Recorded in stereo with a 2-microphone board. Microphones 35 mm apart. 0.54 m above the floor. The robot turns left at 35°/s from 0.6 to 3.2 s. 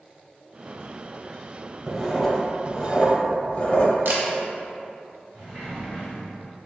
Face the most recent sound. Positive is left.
turn(degrees=-5)  # may be behind; listen again after turning